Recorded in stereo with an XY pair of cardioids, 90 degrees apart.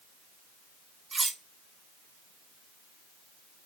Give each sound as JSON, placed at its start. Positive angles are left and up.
{"t": 1.1, "sound": "cutlery clinking", "azimuth_deg": -35, "distance_m": 1.0}